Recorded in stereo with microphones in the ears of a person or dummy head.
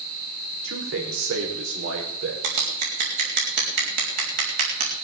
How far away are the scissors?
About 4 m.